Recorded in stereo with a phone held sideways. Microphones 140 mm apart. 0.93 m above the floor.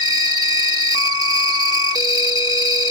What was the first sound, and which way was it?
An insect, 30° right (ahead or behind).